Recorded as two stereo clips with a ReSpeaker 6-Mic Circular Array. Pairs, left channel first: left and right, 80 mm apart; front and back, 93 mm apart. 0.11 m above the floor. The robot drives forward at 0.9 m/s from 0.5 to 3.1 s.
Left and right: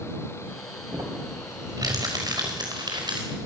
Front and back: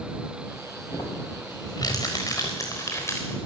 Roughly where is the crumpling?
Ahead right.